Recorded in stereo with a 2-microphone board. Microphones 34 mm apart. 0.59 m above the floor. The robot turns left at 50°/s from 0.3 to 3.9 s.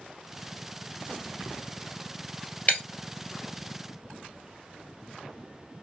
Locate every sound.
2.7 s breaking glass: 45° left (ahead or behind), 1.3 m; by 2.8 s 50° left (ahead or behind), 1.3 m